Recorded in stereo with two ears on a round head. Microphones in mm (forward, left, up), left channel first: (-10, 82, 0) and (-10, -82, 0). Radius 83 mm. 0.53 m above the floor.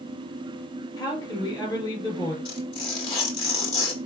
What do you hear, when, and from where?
1.0 s a woman speaking: 25° left (ahead or behind), 4 m
2.5 s tearing paper: 30° left (ahead or behind), 1.9 m